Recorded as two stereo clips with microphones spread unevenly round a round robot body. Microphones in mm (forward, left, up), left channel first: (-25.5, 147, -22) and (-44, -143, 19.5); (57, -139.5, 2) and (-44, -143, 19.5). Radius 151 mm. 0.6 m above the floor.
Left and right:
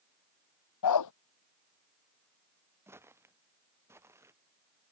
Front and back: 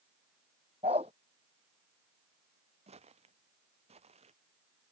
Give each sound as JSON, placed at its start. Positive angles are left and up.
{"t": 0.8, "sound": "a dog barking", "azimuth_deg": 110}
{"t": 2.9, "sound": "footsteps", "azimuth_deg": -175}